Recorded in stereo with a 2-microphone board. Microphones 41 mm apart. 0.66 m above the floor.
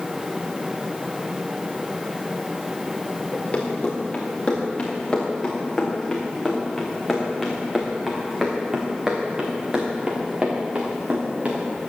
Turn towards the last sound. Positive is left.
turn(degrees=-40)  # may be behind; listen again after turning